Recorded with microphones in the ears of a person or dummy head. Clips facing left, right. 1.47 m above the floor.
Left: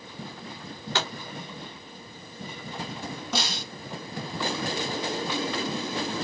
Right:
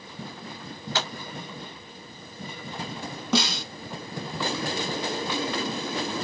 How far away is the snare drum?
About 1.5 m.